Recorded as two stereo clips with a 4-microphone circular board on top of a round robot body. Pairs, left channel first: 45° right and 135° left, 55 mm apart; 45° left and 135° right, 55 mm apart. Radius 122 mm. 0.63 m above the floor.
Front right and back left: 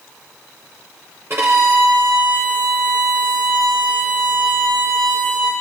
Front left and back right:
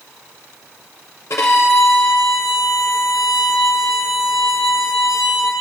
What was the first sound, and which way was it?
A violin, 85° left.